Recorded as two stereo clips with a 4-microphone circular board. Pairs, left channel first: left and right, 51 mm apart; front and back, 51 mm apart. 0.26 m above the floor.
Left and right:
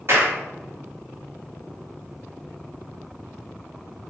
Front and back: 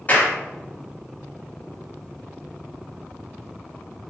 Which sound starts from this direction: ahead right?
A clap, at 0.1 s.